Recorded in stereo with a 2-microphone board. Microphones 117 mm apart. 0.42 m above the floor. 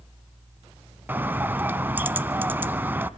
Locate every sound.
1.1 s a bird: 15° right (ahead or behind), 0.8 m